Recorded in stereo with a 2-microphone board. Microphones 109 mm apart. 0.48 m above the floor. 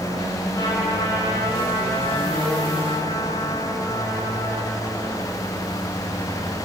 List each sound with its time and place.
0.5 s a trumpet: 35° left (ahead or behind), 6.5 m